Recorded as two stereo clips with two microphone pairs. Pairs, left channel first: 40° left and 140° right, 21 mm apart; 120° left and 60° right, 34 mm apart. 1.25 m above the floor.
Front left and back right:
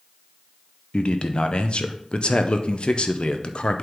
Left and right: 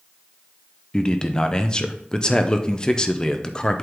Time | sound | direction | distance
0.9 | a man speaking | 60° left | 0.6 m